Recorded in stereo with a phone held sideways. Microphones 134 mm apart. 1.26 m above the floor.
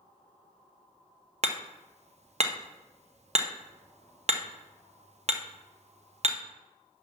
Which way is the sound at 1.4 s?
55° right (ahead or behind).